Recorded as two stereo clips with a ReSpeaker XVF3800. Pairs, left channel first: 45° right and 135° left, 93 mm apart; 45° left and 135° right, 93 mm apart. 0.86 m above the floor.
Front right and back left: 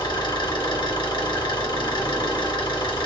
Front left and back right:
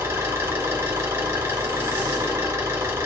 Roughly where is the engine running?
Right.